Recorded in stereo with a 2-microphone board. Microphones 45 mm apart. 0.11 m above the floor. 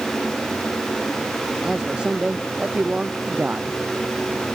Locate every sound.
1.6 s a man speaking: 15° right (ahead or behind); by 3.8 s 35° right (ahead or behind)